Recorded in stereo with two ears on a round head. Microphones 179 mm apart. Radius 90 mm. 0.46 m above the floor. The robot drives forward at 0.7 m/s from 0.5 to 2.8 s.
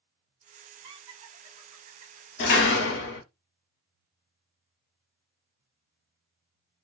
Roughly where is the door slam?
Left.